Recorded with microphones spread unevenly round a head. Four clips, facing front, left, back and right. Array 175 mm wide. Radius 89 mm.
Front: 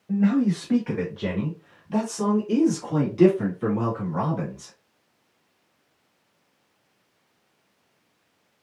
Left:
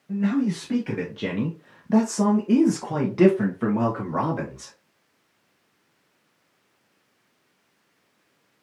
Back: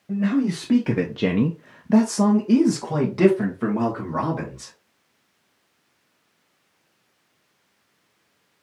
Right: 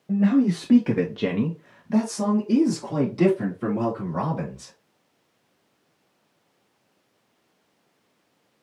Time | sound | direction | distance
0.1 | a man speaking | 95° right | 1.0 m